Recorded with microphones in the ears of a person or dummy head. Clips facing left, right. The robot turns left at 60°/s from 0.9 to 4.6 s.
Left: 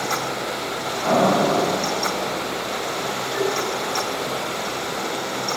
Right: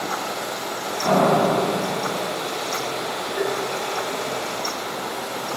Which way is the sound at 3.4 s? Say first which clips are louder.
Left 2 dB; 15° left (ahead or behind).